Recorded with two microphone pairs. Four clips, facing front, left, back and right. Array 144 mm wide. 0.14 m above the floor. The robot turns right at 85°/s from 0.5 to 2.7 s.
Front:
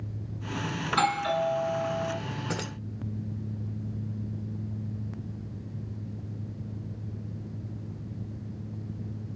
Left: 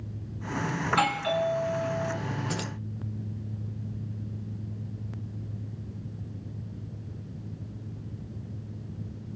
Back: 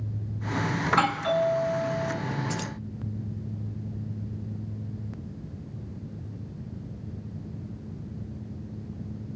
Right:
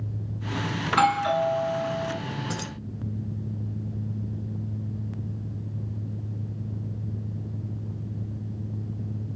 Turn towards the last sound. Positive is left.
turn(degrees=-5)